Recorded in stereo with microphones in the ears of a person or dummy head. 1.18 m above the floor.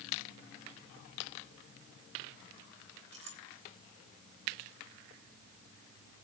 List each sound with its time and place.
3.1 s a clink: 30° right (ahead or behind), 5 m